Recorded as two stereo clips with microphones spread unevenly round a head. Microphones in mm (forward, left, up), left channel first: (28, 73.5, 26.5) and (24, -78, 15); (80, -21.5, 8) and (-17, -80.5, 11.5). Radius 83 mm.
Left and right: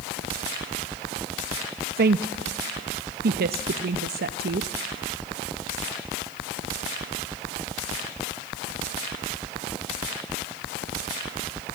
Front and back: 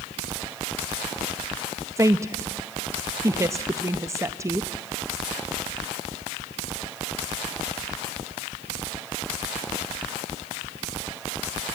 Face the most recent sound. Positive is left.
turn(degrees=-85)